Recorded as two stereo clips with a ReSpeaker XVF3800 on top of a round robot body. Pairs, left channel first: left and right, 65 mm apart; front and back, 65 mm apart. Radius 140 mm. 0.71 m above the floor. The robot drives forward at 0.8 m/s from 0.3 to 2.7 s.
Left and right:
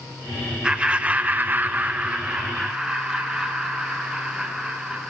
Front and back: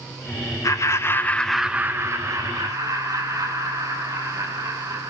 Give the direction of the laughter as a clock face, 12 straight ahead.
1 o'clock.